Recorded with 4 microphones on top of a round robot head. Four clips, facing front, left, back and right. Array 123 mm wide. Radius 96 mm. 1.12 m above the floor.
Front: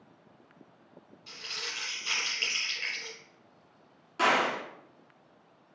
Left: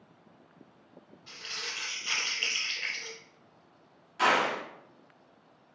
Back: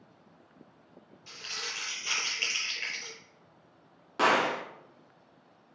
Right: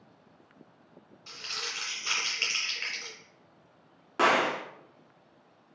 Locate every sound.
1.3 s crumpling: 80° right, 1.5 m
4.2 s a gunshot: 120° right, 1.0 m